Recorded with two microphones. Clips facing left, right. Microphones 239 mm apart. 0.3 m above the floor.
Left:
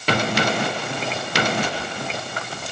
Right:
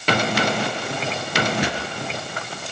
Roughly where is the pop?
Right.